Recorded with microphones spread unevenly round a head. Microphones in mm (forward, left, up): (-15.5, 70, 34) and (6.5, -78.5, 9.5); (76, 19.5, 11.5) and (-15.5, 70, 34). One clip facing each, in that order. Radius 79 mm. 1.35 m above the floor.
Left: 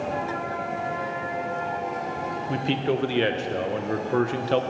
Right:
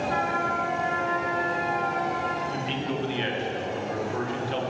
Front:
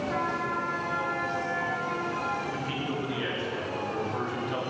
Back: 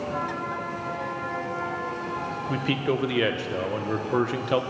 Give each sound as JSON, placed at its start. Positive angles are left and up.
{"t": 0.1, "sound": "a trumpet", "azimuth_deg": -70, "distance_m": 2.5}
{"t": 2.5, "sound": "a man speaking", "azimuth_deg": 130, "distance_m": 1.4}